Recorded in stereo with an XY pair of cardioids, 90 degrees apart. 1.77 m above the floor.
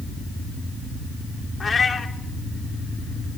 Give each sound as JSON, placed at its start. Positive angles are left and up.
{"t": 1.6, "sound": "a cat meowing", "azimuth_deg": 40, "distance_m": 3.0}